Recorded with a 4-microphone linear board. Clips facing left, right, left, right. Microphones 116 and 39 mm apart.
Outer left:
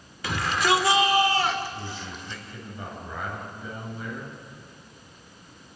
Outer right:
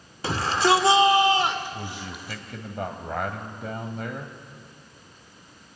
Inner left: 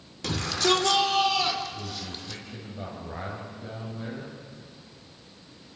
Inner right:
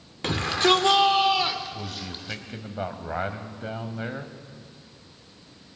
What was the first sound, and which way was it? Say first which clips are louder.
A shout: outer right 3 dB, inner right 4 dB; 35° right (ahead or behind).